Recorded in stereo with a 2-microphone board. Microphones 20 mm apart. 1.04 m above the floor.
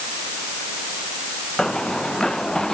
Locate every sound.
1.6 s running footsteps: 35° left (ahead or behind); by 2.7 s 30° left (ahead or behind)